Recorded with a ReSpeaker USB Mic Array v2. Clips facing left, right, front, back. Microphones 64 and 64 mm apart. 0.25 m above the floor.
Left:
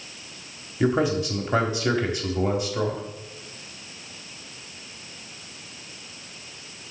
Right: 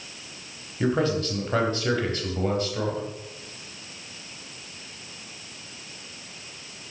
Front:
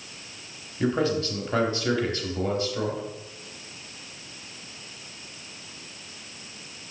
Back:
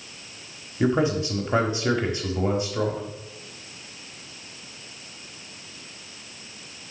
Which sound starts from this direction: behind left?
A man speaking, at 0.8 s.